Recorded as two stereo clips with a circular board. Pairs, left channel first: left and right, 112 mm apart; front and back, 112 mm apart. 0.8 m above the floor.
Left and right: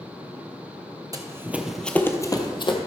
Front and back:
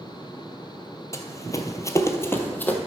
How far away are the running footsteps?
About 1.0 m.